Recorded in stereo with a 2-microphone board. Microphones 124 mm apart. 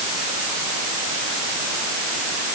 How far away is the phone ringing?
No phone ringing in this recording.